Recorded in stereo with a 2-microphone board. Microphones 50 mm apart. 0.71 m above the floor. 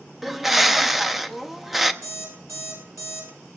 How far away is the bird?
About 0.6 m.